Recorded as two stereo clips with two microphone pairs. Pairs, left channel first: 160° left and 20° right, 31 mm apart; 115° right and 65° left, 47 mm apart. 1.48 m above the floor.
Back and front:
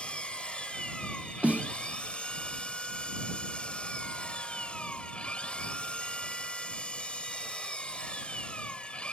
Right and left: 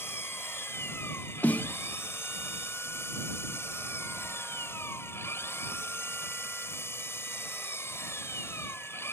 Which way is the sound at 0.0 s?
140° right.